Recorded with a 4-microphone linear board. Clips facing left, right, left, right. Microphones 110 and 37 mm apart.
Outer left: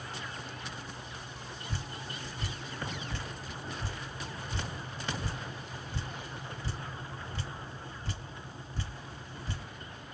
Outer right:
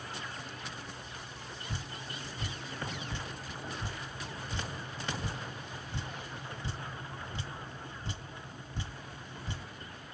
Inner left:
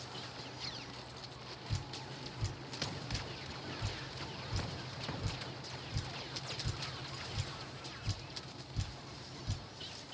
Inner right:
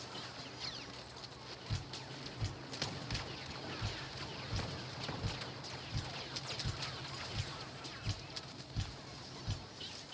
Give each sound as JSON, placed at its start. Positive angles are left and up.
{"t": 1.7, "sound": "dripping", "side_deg": -20, "distance_m": 1.1}